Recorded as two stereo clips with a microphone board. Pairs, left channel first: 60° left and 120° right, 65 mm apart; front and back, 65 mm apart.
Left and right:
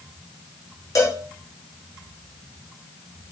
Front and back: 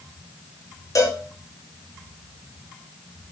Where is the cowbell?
25° left, 0.8 m.